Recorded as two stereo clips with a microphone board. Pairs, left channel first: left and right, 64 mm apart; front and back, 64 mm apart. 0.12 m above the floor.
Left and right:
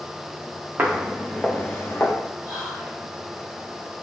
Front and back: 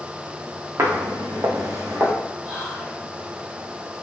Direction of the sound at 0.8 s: 145° right.